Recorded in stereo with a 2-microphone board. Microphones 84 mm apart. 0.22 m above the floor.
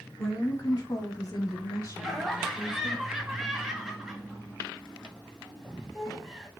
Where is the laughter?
5° right (ahead or behind), 1.1 m.